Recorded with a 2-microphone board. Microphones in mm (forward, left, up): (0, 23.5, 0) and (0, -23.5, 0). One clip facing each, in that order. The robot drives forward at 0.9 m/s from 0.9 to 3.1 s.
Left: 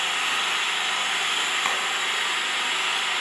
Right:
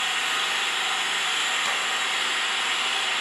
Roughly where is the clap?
Left.